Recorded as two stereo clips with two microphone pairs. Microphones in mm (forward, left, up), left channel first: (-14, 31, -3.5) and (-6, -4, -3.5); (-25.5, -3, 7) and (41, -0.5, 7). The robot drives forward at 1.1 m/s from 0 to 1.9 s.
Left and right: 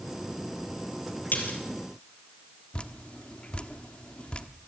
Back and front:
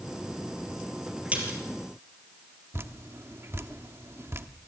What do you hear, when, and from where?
1.3 s a splash: 70° left, 4.5 m; by 1.6 s 75° left, 4.5 m
2.7 s dripping: 50° left, 1.1 m